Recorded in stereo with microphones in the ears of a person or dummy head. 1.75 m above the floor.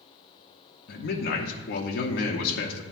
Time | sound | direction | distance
0.9 | a man speaking | 60° left (ahead or behind) | 0.8 m